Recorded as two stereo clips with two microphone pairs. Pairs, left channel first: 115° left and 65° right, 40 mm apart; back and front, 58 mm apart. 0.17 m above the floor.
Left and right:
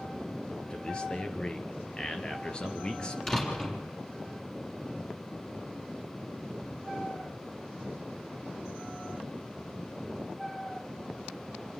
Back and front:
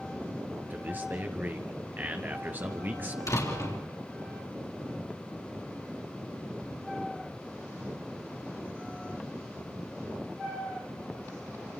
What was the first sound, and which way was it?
A man speaking, 50° left.